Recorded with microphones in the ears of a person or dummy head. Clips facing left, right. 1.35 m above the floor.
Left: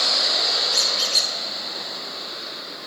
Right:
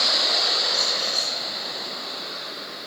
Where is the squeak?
25° left (ahead or behind), 0.5 m.